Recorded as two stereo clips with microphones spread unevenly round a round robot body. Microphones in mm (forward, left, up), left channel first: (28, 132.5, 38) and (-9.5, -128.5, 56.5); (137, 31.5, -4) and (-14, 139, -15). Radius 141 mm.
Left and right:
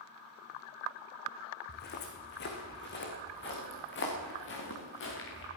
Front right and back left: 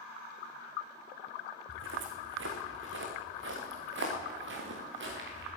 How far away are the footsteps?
About 2.5 m.